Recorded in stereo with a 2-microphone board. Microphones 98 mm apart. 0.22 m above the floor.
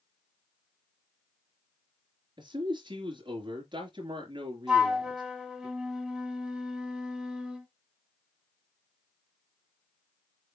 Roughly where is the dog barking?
I don't hear a dog barking.